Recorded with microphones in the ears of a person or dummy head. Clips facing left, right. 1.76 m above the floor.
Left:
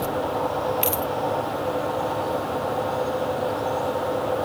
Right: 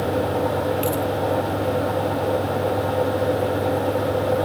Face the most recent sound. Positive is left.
turn(degrees=25)  # may be behind; listen again after turning